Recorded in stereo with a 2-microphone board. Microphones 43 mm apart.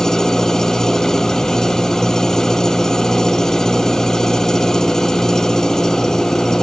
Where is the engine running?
10° left (ahead or behind).